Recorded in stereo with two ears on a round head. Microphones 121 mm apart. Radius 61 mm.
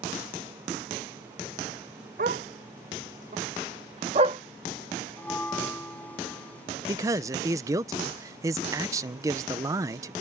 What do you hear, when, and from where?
2.2 s a dog barking: 65° right (ahead or behind); by 4.4 s 35° right (ahead or behind)
5.2 s a bell: 10° left (ahead or behind)
6.9 s a man speaking: 25° right (ahead or behind)